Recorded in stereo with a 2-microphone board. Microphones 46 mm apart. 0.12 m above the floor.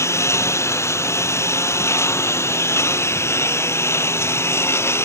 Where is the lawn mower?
80° left; by 5.0 s 65° left (ahead or behind).